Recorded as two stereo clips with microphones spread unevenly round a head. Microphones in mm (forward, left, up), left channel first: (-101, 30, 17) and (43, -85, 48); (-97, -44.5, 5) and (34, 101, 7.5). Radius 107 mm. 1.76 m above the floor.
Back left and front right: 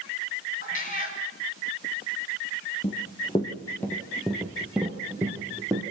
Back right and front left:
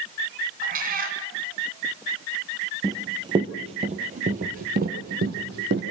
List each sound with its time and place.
0.6 s a cat meowing: 85° left, 3 m
2.8 s running footsteps: 95° left, 1.9 m; by 5.8 s 25° left, 3 m